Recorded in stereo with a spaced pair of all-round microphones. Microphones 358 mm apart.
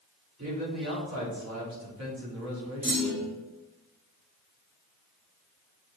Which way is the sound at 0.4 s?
50° right (ahead or behind).